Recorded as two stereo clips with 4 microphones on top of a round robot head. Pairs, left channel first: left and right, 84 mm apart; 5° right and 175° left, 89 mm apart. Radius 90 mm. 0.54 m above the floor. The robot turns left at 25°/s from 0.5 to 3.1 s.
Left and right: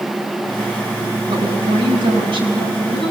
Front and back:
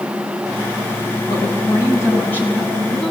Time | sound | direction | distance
1.3 | a woman speaking | 50° right | 6.5 m